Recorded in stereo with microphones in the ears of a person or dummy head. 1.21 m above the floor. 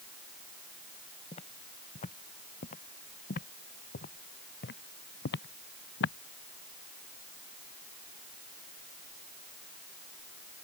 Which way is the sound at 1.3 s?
35° left (ahead or behind).